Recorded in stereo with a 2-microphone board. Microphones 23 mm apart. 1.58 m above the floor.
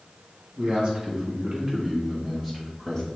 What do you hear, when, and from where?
0.6 s a man speaking: 50° right (ahead or behind), 1.5 m; by 3.1 s 15° left (ahead or behind), 1.1 m